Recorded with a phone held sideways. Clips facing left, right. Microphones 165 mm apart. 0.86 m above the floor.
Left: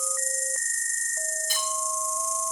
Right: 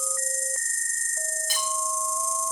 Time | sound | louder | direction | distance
0.0 | an insect | even | 30° right (ahead or behind) | 0.9 m
1.5 | cutlery clinking | right 2 dB | 75° right (ahead or behind) | 5 m